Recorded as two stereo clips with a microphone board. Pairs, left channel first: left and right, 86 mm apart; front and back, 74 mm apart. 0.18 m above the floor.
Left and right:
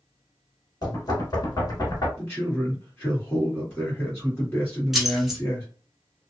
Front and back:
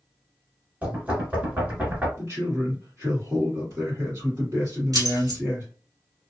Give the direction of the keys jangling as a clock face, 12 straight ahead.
6 o'clock.